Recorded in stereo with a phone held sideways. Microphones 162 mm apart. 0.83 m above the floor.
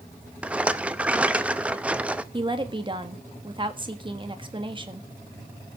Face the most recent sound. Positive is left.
turn(degrees=-30)  # may be behind; listen again after turning